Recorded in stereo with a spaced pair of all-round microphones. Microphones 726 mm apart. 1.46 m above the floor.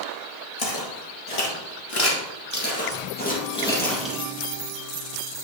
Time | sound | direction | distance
0.6 | footsteps | 50° left (ahead or behind) | 2 m